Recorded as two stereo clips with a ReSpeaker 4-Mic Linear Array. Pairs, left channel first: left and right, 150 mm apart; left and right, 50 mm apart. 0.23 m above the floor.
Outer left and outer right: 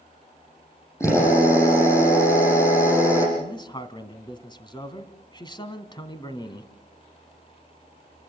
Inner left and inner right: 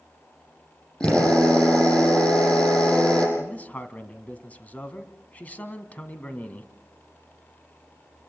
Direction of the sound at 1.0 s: 20° left (ahead or behind).